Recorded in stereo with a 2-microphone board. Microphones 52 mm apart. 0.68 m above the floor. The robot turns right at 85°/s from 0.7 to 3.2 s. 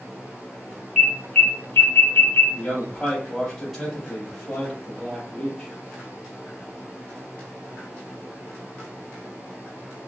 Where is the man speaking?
120° left, 1.2 m; by 5.7 s straight behind, 1.2 m.